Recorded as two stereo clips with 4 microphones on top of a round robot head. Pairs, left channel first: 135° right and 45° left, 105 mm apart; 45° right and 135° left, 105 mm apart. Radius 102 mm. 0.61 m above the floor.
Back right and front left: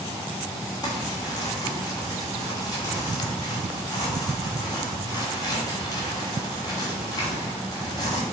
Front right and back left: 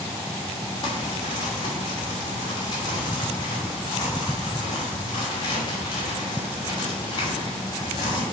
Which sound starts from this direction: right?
Crumpling, at 0.8 s.